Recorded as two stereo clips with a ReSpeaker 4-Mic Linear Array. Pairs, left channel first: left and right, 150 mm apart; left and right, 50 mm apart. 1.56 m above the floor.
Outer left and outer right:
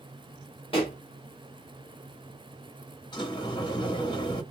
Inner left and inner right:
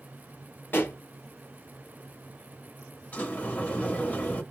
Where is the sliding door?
30° left (ahead or behind), 1.4 m.